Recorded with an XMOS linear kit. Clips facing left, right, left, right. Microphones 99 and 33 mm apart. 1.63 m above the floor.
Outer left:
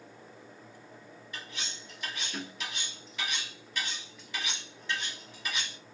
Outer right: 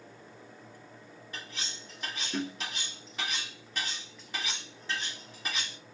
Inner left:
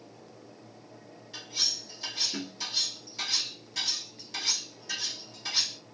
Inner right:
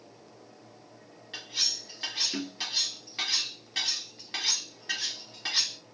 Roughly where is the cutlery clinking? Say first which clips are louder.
Even, inner right 1 dB; right.